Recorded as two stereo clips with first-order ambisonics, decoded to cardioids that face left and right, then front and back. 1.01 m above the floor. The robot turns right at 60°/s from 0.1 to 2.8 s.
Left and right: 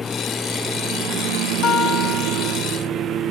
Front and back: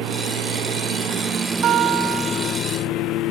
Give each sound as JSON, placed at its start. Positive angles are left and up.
{"t": 0.0, "sound": "a lawn mower", "azimuth_deg": 165}
{"t": 1.6, "sound": "a guitar", "azimuth_deg": 135}